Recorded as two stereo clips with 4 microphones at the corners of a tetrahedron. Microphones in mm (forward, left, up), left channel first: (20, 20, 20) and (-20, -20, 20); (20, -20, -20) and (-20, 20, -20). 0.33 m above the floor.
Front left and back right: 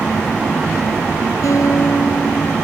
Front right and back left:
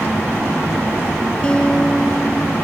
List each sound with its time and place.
1.4 s a guitar: 25° left